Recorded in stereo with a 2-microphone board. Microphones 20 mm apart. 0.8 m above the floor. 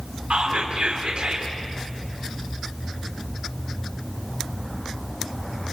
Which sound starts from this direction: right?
Whispering, at 0.3 s.